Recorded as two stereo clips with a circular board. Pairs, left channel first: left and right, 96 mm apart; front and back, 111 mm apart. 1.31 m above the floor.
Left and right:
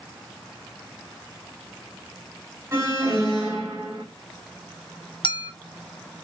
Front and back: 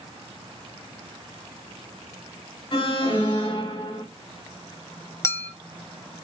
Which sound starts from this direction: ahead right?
An alarm, at 2.7 s.